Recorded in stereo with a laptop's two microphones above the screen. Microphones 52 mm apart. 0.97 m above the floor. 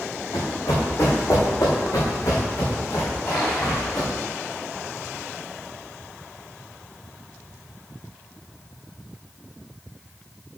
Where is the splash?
45° left (ahead or behind), 4 m.